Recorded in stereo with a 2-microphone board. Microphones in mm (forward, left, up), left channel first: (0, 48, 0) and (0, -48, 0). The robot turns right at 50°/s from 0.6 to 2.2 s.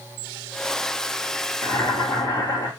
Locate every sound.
1.6 s boiling: 30° left (ahead or behind), 2.5 m; by 2.7 s 50° left (ahead or behind), 2.5 m